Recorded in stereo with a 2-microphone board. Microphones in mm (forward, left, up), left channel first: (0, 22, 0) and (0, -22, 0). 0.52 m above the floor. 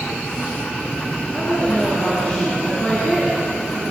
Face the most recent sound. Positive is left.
turn(degrees=30)  # may be behind; listen again after turning